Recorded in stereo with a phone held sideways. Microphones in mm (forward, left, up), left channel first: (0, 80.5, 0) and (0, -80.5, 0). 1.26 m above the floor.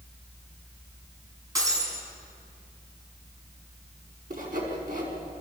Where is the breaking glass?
20° right (ahead or behind), 6.5 m.